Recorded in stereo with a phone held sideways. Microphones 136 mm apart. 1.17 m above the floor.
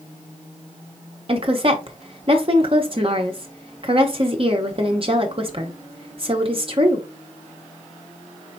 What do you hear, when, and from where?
1.3 s a woman speaking: 45° right (ahead or behind), 0.9 m